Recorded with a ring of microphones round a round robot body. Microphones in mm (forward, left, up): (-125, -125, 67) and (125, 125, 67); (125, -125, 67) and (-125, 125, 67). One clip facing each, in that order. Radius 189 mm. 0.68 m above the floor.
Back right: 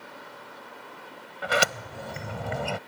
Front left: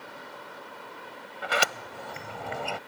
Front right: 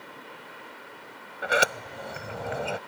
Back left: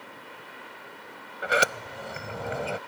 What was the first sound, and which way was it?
A sliding door, 135° right.